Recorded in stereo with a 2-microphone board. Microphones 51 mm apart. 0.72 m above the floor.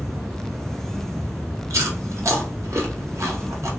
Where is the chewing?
80° right, 0.9 m.